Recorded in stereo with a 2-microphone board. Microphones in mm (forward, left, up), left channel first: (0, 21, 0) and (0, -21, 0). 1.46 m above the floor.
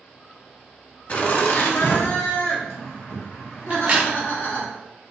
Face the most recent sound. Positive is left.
turn(degrees=-30)  # may be behind; listen again after turning